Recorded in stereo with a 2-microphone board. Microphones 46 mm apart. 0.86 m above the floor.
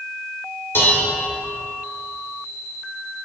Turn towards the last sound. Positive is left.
turn(degrees=50)  # may be behind; listen again after turning